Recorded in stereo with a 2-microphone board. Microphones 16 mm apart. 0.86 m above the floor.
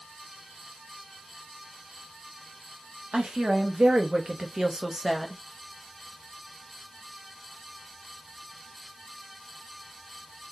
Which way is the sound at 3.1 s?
70° right (ahead or behind).